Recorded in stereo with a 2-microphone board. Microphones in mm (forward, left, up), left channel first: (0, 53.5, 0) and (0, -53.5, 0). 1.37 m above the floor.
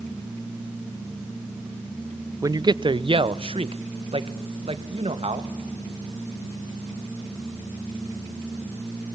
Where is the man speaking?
30° right (ahead or behind), 0.5 m; by 5.5 s 70° right (ahead or behind), 2.5 m.